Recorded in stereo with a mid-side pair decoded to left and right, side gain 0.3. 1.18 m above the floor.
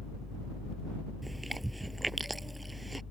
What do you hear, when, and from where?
0.0 s a fan: 35° left
1.2 s chewing: 20° right